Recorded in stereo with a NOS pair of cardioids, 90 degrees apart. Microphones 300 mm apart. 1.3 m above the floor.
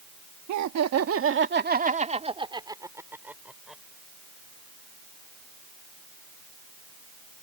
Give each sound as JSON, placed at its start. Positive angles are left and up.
{"t": 0.5, "sound": "laughter", "azimuth_deg": -70}